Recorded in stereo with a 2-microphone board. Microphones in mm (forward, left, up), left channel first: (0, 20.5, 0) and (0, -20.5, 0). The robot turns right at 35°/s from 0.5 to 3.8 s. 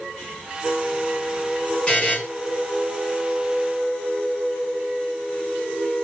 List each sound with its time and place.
1.9 s a buzzer: 20° left (ahead or behind), 2.5 m; by 2.2 s 30° left (ahead or behind), 2.5 m